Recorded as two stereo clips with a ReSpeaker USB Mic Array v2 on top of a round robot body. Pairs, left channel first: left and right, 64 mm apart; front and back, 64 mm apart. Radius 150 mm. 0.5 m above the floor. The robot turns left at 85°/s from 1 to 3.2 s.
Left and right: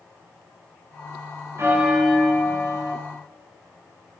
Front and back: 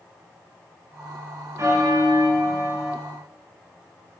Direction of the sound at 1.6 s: 135° right.